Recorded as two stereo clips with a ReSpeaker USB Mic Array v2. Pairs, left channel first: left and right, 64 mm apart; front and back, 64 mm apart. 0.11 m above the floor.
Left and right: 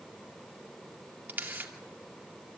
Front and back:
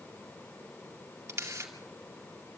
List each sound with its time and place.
1.3 s a camera shutter: 145° right, 2 m